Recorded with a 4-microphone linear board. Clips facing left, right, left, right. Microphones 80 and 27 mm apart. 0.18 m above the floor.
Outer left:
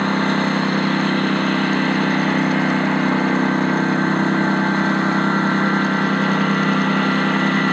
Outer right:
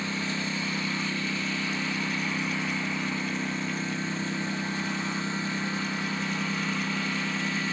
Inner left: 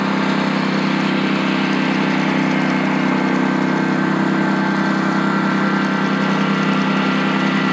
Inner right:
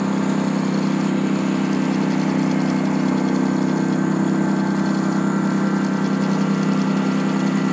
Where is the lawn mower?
60° left (ahead or behind).